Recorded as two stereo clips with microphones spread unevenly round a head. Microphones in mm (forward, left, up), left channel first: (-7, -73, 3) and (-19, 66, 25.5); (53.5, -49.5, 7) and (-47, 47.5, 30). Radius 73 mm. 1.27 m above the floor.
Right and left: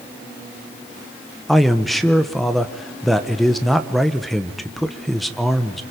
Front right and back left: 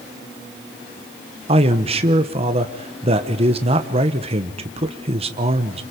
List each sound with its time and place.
1.5 s a man speaking: 170° right, 1.1 m